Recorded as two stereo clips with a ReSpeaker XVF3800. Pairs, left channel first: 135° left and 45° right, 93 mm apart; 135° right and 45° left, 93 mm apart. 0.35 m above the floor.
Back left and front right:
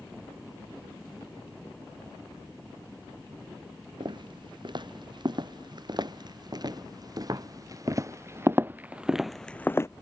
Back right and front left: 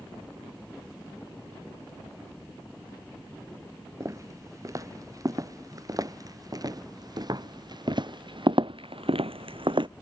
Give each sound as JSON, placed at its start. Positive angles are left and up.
{"t": 4.0, "sound": "footsteps", "azimuth_deg": -10}